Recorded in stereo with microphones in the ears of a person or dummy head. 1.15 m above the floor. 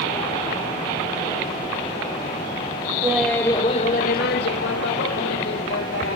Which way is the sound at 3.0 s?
10° right (ahead or behind).